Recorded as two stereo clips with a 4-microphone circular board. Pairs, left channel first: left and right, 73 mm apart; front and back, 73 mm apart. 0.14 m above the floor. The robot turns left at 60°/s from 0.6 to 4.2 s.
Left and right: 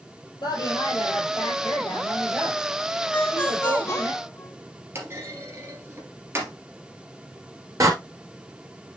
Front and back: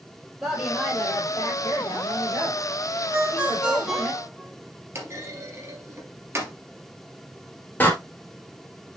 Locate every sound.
0.4 s a woman speaking: 100° left, 3.5 m; by 4.1 s 110° right, 3.5 m
3.1 s a ringtone: 145° left, 1.1 m; by 4.5 s 80° left, 1.1 m
5.0 s a clunk: 135° right, 2.5 m
7.8 s a door slam: 60° right, 2 m